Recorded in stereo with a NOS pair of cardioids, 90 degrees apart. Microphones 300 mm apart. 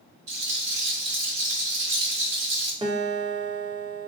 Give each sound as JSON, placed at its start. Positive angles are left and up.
{"t": 0.3, "sound": "a rattle", "azimuth_deg": -55, "distance_m": 1.5}
{"t": 2.8, "sound": "a guitar", "azimuth_deg": -20, "distance_m": 0.7}